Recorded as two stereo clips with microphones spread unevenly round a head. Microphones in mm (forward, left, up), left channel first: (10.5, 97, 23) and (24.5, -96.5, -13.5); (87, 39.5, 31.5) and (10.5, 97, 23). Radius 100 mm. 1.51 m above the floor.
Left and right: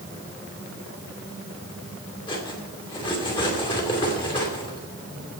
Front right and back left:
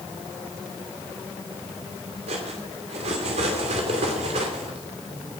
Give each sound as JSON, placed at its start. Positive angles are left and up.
{"t": 2.3, "sound": "cutlery clinking", "azimuth_deg": 160, "distance_m": 2.5}